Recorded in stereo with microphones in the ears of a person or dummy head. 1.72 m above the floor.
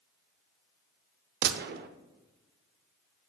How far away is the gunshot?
About 0.6 m.